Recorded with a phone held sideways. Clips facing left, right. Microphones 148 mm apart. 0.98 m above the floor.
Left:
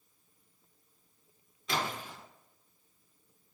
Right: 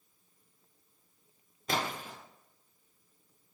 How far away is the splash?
About 0.7 m.